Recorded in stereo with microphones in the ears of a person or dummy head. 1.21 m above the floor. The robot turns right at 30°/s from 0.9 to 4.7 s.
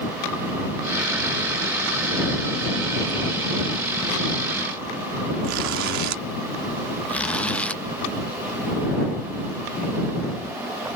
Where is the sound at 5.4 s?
65° right (ahead or behind).